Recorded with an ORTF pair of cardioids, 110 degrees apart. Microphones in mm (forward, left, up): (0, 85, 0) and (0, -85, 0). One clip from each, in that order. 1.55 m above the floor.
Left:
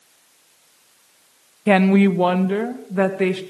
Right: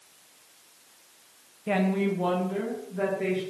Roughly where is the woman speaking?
Ahead left.